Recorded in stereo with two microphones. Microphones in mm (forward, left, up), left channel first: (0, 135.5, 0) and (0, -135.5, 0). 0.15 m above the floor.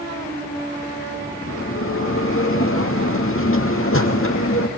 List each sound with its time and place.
1.5 s a bell: 50° left (ahead or behind), 2.5 m